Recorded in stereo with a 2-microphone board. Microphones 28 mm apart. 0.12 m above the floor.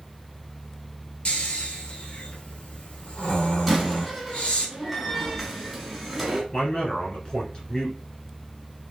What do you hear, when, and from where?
1.2 s snoring: 50° left (ahead or behind), 1.0 m
3.7 s a door slam: centre (ahead or behind), 1.2 m
6.5 s a man speaking: 35° left (ahead or behind), 2.0 m